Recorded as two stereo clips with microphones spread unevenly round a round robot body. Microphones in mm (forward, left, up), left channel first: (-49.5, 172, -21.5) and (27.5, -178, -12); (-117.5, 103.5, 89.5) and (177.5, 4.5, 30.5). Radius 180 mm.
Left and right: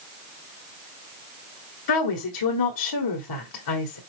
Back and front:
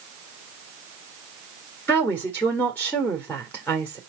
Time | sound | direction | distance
1.9 | a woman speaking | 70° left | 1.5 m